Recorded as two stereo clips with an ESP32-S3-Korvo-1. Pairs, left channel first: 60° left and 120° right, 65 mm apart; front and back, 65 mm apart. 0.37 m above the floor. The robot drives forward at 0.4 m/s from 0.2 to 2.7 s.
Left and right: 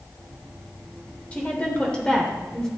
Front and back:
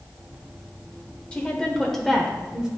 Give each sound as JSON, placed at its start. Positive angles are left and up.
{"t": 1.3, "sound": "a woman speaking", "azimuth_deg": 40, "distance_m": 1.1}